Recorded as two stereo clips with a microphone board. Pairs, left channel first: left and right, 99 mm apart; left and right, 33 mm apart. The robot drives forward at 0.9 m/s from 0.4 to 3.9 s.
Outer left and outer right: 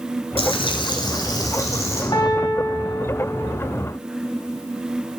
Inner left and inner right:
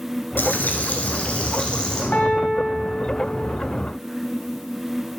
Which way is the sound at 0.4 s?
75° left (ahead or behind).